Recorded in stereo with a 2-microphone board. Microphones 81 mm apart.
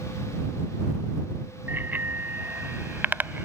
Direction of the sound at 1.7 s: 25° right (ahead or behind).